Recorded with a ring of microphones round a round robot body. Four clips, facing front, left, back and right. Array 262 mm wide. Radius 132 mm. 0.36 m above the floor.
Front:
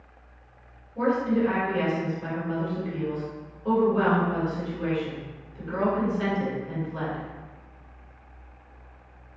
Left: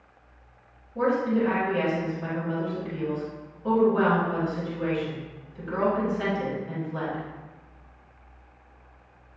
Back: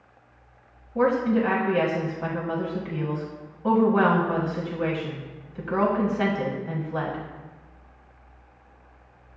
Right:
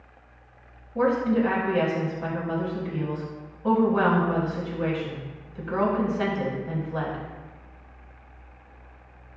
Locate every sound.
0.9 s a woman speaking: 155° right, 2 m